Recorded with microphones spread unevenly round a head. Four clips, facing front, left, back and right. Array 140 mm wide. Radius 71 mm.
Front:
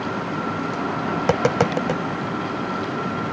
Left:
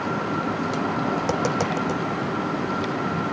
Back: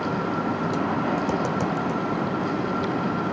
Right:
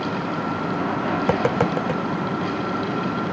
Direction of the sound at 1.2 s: 15° right.